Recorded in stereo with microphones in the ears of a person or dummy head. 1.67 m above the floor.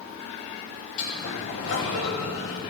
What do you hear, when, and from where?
1.0 s a sliding door: 75° left (ahead or behind), 3 m